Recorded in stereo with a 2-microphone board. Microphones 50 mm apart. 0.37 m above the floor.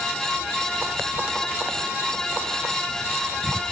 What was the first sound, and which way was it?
Only background noise.